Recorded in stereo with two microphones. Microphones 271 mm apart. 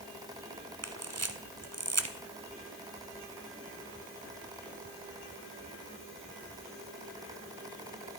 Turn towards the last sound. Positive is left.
turn(degrees=-60)  # may be behind; listen again after turning